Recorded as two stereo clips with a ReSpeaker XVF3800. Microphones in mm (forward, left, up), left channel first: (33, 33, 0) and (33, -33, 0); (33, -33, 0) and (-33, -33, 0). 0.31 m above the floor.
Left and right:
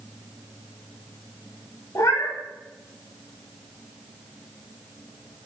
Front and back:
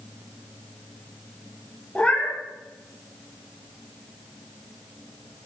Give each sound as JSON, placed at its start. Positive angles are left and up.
{"t": 1.9, "sound": "a cat meowing", "azimuth_deg": 70, "distance_m": 0.9}